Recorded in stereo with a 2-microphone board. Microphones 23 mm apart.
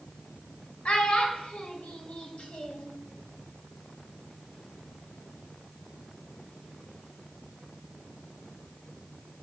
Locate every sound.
0.8 s a child speaking: 50° left (ahead or behind), 0.6 m